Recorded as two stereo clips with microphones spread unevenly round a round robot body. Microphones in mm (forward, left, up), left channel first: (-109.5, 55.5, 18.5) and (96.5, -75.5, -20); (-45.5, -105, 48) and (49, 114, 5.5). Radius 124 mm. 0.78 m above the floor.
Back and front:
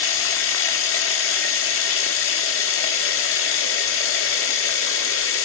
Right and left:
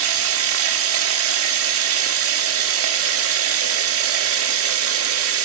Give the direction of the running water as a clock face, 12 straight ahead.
9 o'clock.